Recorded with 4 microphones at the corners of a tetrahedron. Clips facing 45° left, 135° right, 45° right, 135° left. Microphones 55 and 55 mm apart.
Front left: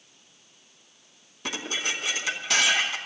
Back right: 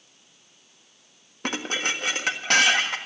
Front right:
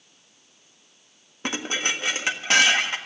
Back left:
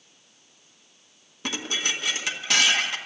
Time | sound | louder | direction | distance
1.4 | dishes clattering | back right 3 dB, front right 2 dB | 100° right | 1.5 m